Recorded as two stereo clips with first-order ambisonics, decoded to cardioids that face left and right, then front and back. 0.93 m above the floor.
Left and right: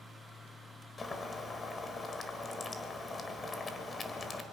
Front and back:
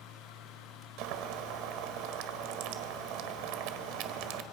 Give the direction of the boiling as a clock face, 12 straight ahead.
7 o'clock.